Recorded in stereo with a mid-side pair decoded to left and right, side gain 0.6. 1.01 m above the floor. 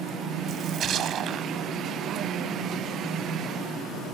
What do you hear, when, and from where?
0.5 s a splash: 50° right